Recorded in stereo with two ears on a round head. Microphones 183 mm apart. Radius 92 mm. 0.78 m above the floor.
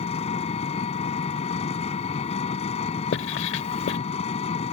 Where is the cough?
No cough in this recording.